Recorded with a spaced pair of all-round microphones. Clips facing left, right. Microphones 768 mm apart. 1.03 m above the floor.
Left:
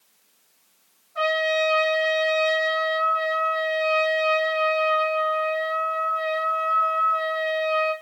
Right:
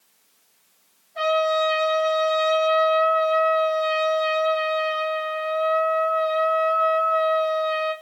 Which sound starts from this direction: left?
A trumpet, at 1.1 s.